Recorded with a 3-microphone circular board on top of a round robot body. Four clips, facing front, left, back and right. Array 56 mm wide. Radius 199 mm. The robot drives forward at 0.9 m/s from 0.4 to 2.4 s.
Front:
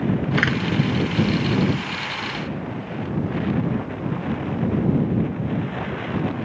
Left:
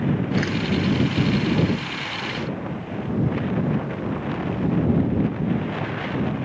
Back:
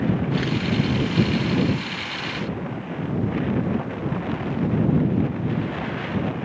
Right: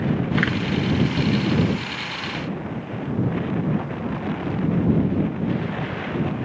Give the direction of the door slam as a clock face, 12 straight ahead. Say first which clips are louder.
Right 2 dB, front 4 dB; 1 o'clock.